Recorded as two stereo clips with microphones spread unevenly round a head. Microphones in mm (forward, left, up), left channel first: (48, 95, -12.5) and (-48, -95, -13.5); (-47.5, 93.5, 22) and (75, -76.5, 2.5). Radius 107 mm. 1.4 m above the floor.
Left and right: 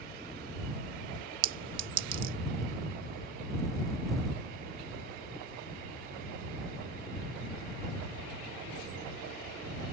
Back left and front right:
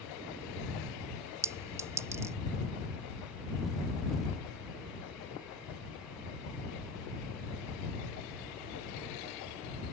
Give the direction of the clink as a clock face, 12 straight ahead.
4 o'clock.